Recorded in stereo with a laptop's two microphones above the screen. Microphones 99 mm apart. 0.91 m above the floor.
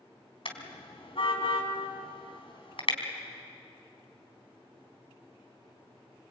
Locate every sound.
0.5 s a car horn: 60° left (ahead or behind), 3.5 m